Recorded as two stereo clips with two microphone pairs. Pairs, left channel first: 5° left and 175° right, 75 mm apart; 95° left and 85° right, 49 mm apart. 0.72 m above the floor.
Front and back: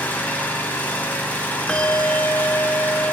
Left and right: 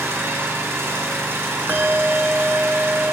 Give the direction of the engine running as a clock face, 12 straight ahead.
2 o'clock.